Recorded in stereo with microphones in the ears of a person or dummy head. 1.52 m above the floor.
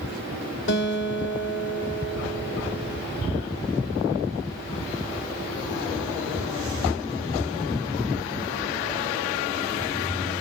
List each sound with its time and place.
0.7 s a guitar: 70° left (ahead or behind), 2.0 m